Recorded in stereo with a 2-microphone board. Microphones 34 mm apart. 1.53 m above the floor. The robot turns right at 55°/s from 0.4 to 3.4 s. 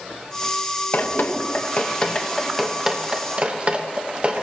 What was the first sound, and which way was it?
Dripping, 65° left (ahead or behind).